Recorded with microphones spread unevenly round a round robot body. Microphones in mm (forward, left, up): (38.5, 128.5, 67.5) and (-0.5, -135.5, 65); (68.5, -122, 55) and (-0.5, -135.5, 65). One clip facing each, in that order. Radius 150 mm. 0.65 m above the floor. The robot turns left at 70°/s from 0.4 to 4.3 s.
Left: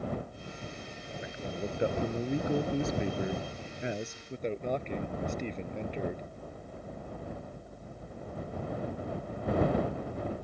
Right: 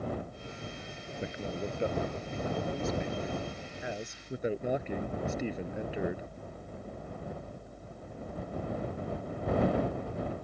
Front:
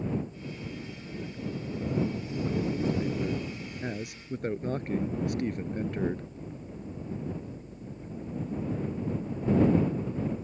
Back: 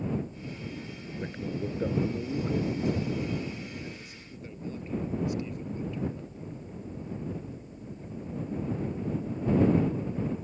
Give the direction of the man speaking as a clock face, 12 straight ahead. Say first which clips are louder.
Right 1 dB, back 3 dB; 5 o'clock.